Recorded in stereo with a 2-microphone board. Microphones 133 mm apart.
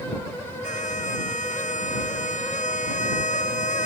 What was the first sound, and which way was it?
A violin, 70° left (ahead or behind).